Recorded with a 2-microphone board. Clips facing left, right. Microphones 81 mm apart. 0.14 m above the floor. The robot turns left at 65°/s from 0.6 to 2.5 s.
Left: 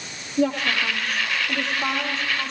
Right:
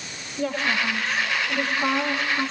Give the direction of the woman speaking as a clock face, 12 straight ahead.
9 o'clock.